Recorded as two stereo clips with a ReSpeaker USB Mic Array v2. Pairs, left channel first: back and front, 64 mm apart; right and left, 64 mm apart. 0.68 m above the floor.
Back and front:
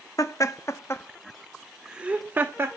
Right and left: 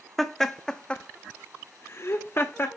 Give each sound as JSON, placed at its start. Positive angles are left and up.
{"t": 0.2, "sound": "laughter", "azimuth_deg": -175, "distance_m": 1.0}